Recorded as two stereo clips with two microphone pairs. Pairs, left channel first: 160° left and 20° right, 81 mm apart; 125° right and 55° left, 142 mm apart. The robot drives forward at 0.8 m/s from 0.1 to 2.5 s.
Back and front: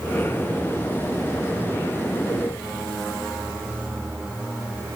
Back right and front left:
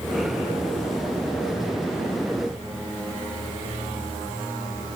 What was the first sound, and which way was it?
Only background noise.